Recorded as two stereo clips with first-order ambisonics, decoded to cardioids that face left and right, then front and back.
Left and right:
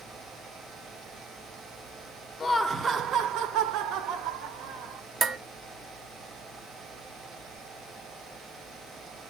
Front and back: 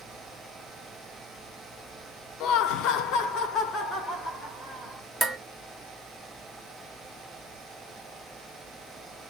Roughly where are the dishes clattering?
Right.